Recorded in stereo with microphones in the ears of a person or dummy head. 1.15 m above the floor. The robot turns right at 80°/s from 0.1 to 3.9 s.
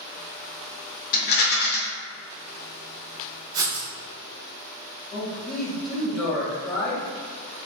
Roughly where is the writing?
Centre.